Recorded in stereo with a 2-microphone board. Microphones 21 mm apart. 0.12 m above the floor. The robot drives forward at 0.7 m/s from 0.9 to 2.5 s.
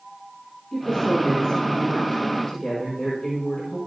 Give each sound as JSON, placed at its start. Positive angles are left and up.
{"t": 0.7, "sound": "a woman speaking", "side_deg": 30, "distance_m": 4.0}